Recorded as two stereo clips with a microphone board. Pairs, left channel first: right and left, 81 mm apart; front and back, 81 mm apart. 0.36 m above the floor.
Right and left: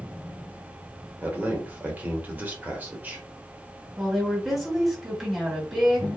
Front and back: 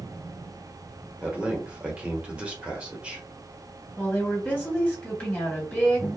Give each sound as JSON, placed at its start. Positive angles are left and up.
{"t": 1.2, "sound": "a man speaking", "azimuth_deg": 125, "distance_m": 0.8}
{"t": 4.0, "sound": "a woman speaking", "azimuth_deg": 0, "distance_m": 1.3}